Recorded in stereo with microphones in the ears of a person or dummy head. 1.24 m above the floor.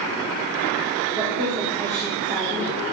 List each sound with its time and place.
1.1 s a woman speaking: 25° right (ahead or behind), 3 m; by 2.8 s 35° right (ahead or behind), 4 m